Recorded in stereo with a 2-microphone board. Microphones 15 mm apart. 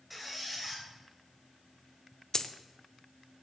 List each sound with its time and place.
0.1 s a squeak: 5° right (ahead or behind), 3 m
2.3 s a dropped coin: 40° left (ahead or behind), 0.7 m